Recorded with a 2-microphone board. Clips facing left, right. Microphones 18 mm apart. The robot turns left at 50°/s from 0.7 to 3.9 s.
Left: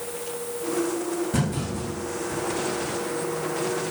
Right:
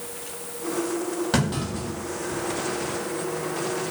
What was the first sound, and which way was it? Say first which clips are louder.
A clunk: right 2 dB; 60° right (ahead or behind).